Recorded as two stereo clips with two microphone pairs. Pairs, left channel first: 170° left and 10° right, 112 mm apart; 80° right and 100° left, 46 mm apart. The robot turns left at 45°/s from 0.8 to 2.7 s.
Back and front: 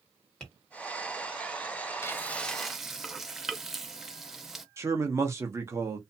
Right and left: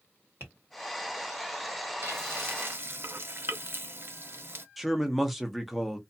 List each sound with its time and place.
0.4 s tapping: 90° left, 1.4 m
2.0 s frying: 110° left, 0.5 m; by 4.7 s 80° left, 0.5 m
4.8 s a man speaking: 10° left, 0.6 m